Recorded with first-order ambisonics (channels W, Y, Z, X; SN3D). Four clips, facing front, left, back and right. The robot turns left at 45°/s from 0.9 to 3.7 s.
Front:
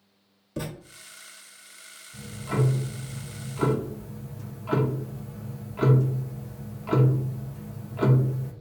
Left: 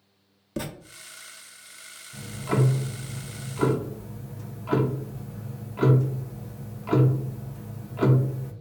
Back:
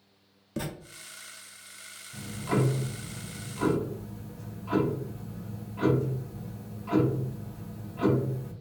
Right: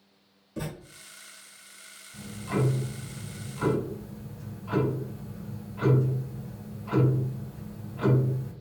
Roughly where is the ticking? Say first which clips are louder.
Left 4 dB, back 1 dB; behind left.